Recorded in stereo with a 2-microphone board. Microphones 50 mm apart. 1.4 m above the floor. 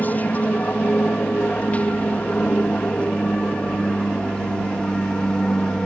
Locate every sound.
0.0 s an aircraft: 35° left (ahead or behind); by 5.9 s 15° left (ahead or behind)